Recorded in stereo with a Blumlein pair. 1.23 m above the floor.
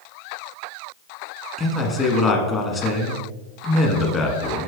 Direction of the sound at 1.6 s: 20° left.